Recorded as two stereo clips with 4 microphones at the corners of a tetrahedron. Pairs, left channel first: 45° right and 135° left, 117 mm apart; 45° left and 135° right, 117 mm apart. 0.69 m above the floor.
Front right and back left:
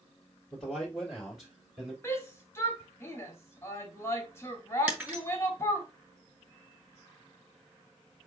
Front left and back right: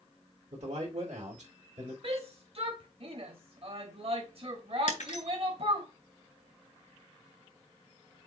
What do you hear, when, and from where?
0.5 s a man speaking: 135° right, 3 m; by 1.9 s 145° right, 3.5 m
2.0 s a shout: 110° right, 1.5 m
4.9 s breaking glass: 60° left, 3 m